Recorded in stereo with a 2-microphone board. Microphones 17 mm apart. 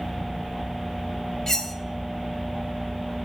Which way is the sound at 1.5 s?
25° left (ahead or behind).